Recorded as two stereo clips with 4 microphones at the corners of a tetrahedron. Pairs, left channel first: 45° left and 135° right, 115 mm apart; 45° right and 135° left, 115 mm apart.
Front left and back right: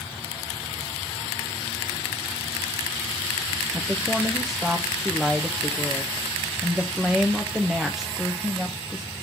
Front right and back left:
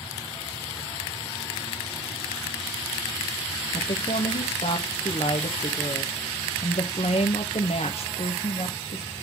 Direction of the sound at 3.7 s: 45° right.